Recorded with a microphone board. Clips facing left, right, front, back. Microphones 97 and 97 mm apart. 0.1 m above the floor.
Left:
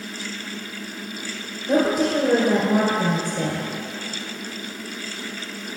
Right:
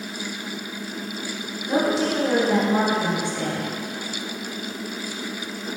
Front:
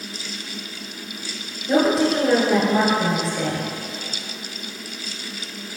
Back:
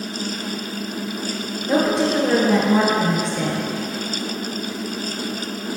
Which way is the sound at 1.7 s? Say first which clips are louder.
Left 2 dB, front 1 dB; 85° left.